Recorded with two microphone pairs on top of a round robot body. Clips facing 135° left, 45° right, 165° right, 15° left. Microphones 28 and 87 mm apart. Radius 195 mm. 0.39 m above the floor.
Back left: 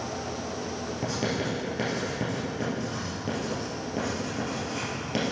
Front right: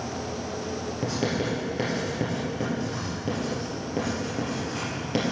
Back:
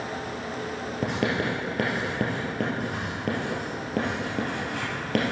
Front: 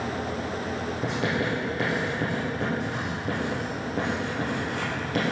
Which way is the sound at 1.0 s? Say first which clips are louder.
Front right 2 dB, back 2 dB; 130° right.